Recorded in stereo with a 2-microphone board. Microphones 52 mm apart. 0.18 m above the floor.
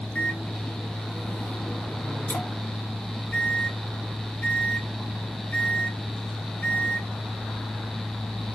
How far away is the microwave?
About 1.6 m.